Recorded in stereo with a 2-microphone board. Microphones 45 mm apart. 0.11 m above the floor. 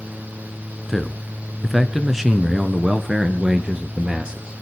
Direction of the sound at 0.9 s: 5° left (ahead or behind).